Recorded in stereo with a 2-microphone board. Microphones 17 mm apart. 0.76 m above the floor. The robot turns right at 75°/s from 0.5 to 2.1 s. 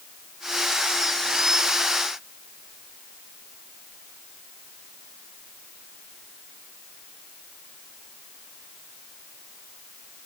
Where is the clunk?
No clunk in this recording.